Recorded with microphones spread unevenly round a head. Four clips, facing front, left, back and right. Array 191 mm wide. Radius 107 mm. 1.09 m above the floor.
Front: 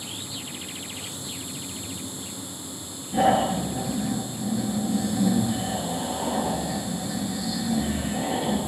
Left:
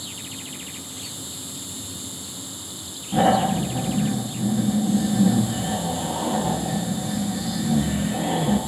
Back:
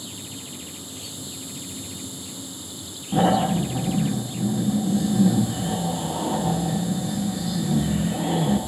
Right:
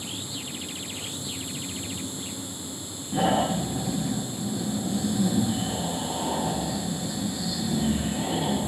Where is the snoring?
Straight behind, 7 m.